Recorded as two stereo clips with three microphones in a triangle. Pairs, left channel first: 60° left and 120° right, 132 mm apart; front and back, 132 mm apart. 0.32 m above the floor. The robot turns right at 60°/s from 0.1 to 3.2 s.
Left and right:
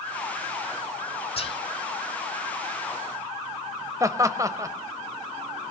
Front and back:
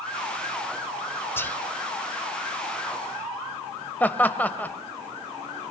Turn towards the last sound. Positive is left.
turn(degrees=-70)